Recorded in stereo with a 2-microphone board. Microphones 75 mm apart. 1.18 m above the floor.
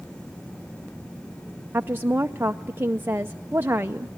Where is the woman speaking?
30° right (ahead or behind), 0.6 m.